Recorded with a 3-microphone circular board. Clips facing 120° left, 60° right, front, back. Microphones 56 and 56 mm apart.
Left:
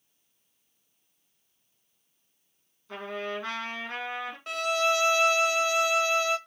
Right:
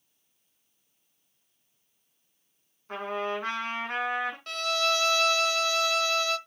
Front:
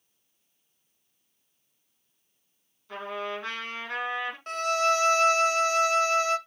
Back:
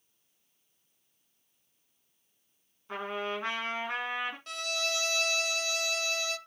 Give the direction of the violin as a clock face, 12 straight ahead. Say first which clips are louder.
Left 4 dB, front 10 dB; 10 o'clock.